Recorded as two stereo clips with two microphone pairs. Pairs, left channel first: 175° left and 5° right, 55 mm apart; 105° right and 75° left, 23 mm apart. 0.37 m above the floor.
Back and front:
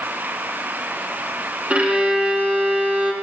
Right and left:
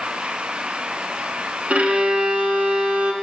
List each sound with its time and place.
1.7 s a violin: 60° left, 0.9 m